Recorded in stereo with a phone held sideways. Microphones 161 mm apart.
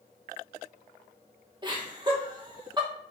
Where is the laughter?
30° right (ahead or behind), 1.4 m.